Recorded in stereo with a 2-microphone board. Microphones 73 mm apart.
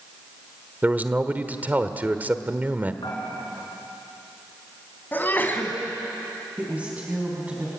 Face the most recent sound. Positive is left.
turn(degrees=-20)  # may be behind; listen again after turning